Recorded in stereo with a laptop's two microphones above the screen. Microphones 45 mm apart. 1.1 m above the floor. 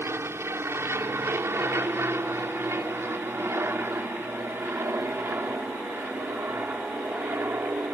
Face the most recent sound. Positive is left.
turn(degrees=-45)  # may be behind; listen again after turning